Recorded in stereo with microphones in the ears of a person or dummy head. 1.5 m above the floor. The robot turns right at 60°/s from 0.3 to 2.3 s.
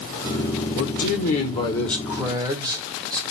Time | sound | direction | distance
0.8 | a man speaking | 105° left | 1.2 m